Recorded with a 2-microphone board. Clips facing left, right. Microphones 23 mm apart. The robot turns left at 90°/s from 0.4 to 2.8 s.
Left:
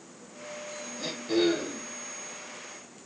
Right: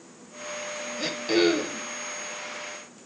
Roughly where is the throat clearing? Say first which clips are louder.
Right 3 dB; ahead right.